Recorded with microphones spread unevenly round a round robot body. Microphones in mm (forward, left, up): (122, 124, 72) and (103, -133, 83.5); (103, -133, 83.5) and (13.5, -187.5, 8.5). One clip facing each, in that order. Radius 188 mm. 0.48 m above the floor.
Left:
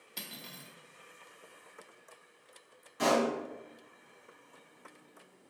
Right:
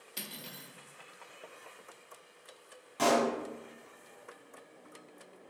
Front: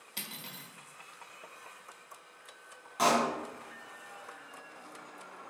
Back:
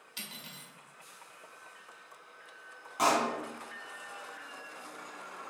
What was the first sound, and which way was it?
Cutlery clinking, 15° right.